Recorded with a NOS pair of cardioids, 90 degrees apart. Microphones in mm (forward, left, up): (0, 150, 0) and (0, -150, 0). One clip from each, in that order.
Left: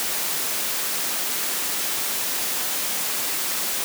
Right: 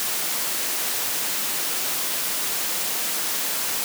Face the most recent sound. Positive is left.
No sound to turn to.